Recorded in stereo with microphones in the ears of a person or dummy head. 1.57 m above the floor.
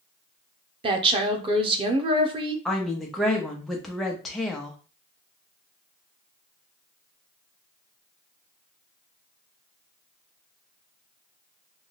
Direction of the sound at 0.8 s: 30° right (ahead or behind).